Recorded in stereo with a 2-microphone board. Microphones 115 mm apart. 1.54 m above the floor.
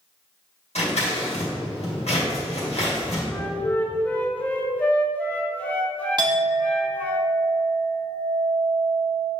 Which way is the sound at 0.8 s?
80° left.